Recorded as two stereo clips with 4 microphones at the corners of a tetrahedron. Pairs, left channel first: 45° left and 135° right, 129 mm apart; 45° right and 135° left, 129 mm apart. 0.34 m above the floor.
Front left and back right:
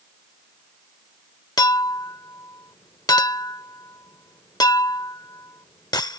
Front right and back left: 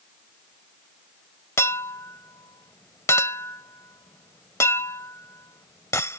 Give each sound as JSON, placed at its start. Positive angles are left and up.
{"t": 1.6, "sound": "a clink", "azimuth_deg": 5}